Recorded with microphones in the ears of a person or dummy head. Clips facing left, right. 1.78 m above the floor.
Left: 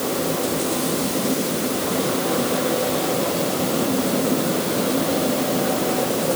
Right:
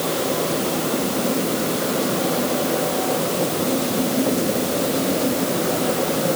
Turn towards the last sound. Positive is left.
No sound to turn to.